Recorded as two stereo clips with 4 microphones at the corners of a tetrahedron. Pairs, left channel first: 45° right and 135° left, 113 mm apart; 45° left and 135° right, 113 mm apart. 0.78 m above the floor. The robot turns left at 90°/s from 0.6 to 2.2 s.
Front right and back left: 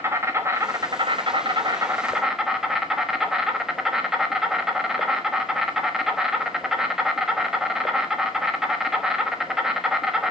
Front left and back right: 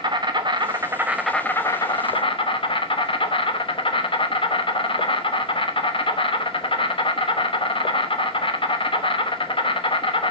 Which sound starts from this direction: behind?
An insect, at 0.0 s.